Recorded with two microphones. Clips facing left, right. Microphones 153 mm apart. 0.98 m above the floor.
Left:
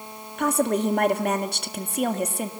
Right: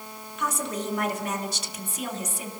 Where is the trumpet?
No trumpet in this recording.